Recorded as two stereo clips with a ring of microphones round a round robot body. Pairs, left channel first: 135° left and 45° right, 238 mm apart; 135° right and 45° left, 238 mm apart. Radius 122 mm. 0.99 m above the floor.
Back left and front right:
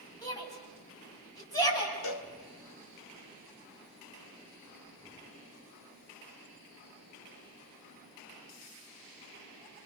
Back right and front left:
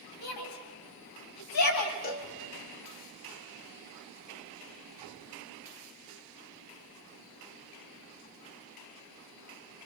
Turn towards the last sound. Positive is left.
turn(degrees=170)